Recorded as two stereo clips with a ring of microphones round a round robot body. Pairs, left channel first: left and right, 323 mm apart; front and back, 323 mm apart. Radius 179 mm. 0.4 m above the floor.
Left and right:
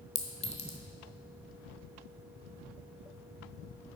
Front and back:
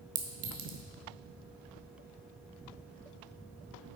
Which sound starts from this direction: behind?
A clink, at 0.1 s.